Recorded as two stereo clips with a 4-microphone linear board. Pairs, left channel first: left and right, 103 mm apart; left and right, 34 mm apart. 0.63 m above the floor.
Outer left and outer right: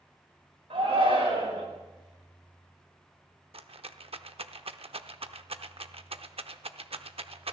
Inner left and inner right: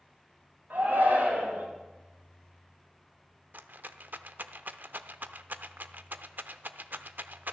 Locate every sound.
0.7 s a shout: 80° right, 5.5 m
3.5 s a rattle: 80° right, 0.6 m